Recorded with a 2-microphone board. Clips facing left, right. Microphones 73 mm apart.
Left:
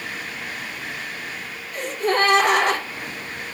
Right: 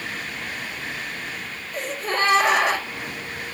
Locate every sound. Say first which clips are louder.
1.7 s a gasp: left 4 dB; 60° left (ahead or behind), 4.5 m